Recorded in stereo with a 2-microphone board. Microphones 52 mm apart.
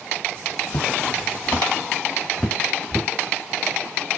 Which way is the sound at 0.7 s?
70° left (ahead or behind).